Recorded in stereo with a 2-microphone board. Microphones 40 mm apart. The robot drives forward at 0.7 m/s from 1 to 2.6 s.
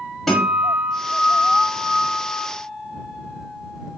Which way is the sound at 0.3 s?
5° left (ahead or behind).